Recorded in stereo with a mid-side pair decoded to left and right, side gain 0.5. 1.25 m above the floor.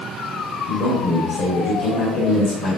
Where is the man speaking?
70° left, 1.6 m.